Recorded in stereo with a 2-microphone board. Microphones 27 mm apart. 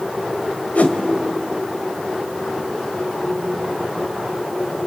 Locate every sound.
0.8 s a whoosh: 65° left (ahead or behind), 2 m